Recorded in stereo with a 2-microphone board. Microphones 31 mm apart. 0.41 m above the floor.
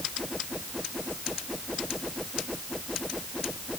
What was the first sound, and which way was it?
Only background noise.